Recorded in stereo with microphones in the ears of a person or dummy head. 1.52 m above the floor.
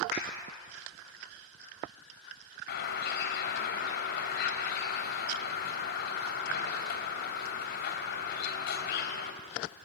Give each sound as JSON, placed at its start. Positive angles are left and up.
{"t": 0.1, "sound": "a clap", "side_deg": 45, "distance_m": 6.0}
{"t": 2.7, "sound": "a bird", "side_deg": 70, "distance_m": 3.0}